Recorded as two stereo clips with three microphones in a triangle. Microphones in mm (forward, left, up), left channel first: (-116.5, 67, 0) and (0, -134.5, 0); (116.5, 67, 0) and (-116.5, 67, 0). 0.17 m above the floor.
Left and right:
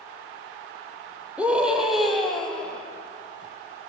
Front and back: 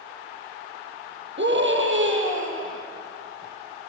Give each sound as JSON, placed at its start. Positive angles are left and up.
{"t": 1.4, "sound": "a scream", "azimuth_deg": -145, "distance_m": 6.0}